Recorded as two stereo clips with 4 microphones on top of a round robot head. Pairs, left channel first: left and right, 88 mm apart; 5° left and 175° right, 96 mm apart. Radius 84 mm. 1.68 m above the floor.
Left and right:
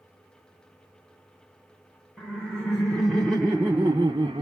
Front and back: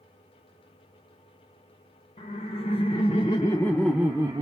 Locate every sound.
2.2 s laughter: 15° left, 1.1 m; by 4.4 s 130° right, 0.7 m